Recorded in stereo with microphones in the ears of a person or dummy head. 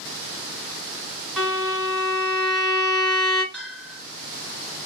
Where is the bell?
5° right (ahead or behind), 2 m.